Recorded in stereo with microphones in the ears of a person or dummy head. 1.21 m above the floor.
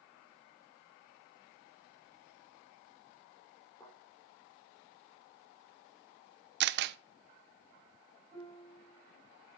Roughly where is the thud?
Centre.